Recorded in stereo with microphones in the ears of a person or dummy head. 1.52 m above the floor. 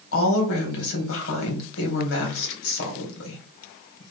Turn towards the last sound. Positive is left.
turn(degrees=75)  # may be behind; listen again after turning